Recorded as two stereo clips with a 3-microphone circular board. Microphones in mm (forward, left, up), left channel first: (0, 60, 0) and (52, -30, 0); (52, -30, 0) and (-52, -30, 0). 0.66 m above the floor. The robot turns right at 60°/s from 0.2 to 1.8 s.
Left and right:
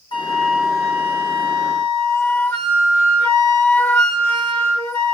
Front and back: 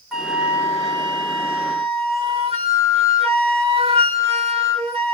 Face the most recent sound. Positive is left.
turn(degrees=-175)